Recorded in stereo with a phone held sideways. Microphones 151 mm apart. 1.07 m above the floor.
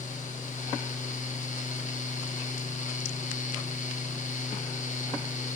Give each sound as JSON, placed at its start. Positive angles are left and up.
{"t": 0.0, "sound": "a fan", "side_deg": 55, "distance_m": 1.2}